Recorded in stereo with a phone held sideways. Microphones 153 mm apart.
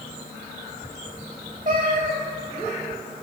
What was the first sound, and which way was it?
A cat meowing, 55° right (ahead or behind).